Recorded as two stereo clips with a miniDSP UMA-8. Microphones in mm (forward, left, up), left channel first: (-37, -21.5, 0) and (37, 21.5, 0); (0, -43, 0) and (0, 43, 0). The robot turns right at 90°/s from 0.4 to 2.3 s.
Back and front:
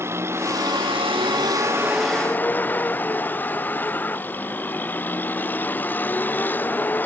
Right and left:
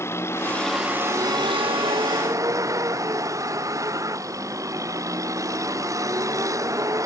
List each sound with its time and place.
0.0 s a vehicle: 30° right; by 7.1 s 140° left